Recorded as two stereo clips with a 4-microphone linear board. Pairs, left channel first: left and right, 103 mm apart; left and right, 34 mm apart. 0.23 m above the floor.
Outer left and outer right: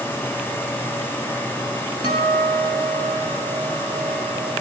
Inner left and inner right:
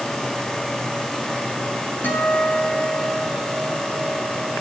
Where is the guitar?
70° left (ahead or behind), 4.5 m.